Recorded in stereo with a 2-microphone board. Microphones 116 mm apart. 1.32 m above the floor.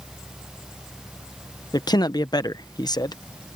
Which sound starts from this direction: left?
A man speaking, at 1.7 s.